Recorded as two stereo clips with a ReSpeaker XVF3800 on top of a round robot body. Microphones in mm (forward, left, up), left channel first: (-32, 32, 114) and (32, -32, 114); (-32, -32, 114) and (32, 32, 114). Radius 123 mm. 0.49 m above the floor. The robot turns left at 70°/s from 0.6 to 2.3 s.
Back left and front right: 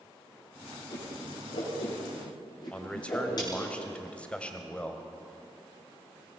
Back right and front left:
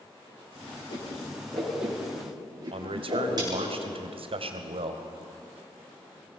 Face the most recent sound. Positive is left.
turn(degrees=55)